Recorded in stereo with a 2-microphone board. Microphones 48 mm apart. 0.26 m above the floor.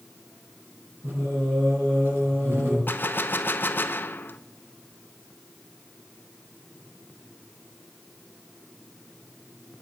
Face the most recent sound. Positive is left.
turn(degrees=45)  # may be behind; listen again after turning